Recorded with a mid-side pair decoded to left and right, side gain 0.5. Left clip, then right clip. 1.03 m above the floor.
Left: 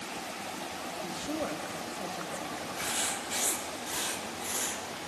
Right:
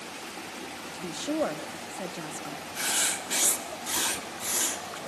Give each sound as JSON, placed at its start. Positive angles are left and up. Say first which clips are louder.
{"t": 0.9, "sound": "a woman speaking", "louder": "right 7 dB", "azimuth_deg": -45, "distance_m": 1.4}
{"t": 2.8, "sound": "writing", "louder": "right 5 dB", "azimuth_deg": -45, "distance_m": 1.5}